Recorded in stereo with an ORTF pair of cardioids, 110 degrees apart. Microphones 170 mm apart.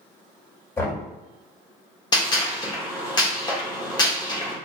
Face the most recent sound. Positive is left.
turn(degrees=25)